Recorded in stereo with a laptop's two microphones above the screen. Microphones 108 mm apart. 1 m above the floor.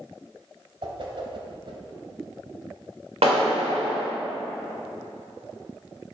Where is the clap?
80° right, 2.5 m.